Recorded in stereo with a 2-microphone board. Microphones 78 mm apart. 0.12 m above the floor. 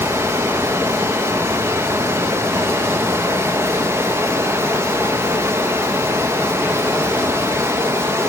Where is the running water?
30° right (ahead or behind), 1.4 m.